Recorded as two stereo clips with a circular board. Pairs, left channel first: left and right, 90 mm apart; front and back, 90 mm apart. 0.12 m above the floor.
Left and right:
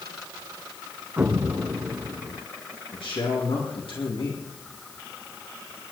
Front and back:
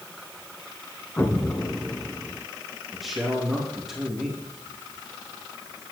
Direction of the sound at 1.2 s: 40° right.